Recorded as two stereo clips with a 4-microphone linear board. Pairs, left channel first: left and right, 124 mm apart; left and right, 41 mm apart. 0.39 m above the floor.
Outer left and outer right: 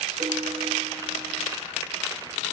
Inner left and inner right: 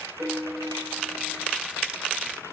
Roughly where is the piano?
Right.